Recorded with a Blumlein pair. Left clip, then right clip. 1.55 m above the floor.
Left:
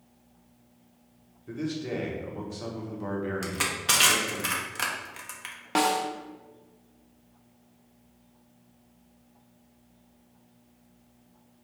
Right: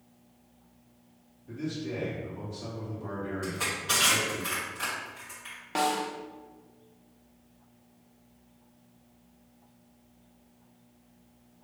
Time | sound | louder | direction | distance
1.5 | a man speaking | left 3 dB | 55° left | 1.5 m
3.4 | crushing | left 3 dB | 40° left | 1.0 m
5.8 | a snare drum | left 3 dB | 20° left | 0.6 m